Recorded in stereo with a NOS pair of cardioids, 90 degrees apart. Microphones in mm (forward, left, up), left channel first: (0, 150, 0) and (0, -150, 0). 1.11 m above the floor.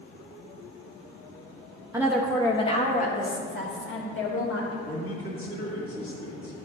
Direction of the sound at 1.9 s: 10° right.